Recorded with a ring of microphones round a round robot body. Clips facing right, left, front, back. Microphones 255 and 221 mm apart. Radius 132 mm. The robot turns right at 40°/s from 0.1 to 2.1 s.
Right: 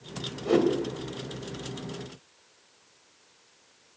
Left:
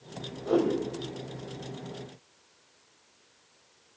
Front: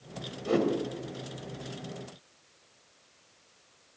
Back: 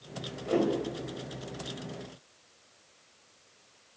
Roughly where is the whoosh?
Ahead right.